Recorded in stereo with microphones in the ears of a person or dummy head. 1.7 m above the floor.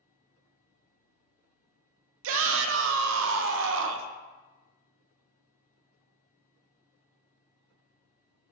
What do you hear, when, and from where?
2.2 s a shout: 75° right (ahead or behind), 0.5 m